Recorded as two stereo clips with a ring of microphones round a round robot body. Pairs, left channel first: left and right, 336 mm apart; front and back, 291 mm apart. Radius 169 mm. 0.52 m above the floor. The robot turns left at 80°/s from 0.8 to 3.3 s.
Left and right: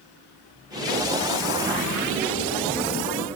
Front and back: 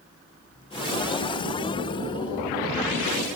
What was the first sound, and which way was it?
Only background noise.